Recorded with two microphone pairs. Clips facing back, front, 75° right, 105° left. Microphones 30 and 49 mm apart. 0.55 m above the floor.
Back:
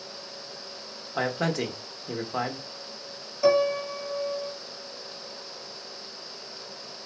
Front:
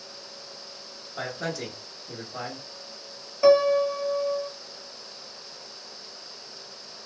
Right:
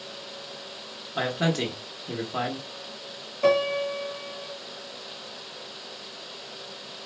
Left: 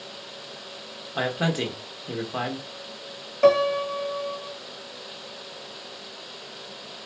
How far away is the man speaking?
About 1.0 m.